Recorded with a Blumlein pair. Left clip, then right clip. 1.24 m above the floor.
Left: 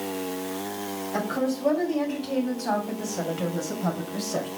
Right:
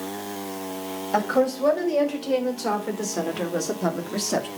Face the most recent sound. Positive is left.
turn(degrees=-35)